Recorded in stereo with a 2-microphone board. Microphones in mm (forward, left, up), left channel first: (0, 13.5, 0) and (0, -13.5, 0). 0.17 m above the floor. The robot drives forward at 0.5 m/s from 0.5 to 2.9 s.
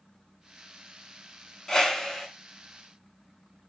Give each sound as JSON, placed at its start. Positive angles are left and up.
{"t": 1.7, "sound": "a whoosh", "side_deg": 20, "distance_m": 0.6}